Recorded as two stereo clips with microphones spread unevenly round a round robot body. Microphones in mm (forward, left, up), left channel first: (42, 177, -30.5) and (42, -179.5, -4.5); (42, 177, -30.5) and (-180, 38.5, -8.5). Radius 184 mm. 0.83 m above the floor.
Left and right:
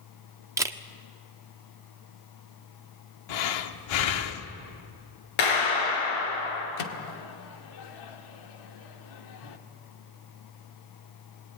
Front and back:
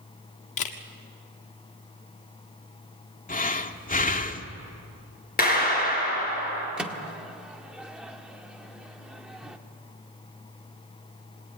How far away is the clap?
About 9.5 m.